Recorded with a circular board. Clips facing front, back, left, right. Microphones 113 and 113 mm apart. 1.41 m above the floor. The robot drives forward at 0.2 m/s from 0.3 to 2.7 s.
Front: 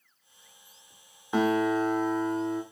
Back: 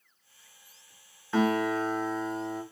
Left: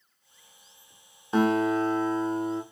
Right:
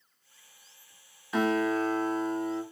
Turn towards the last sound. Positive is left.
turn(degrees=100)